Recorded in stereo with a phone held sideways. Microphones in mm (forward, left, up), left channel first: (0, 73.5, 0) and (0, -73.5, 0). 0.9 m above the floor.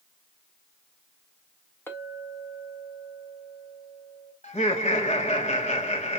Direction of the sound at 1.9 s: 15° left (ahead or behind).